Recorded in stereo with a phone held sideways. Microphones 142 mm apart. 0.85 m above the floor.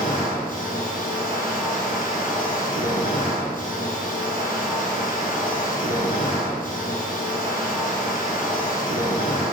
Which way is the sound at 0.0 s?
70° left (ahead or behind).